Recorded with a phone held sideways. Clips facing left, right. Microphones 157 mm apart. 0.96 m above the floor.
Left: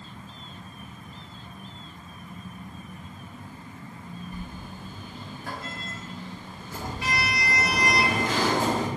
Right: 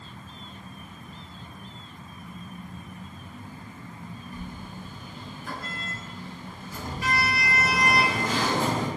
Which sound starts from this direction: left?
A sliding door, at 4.3 s.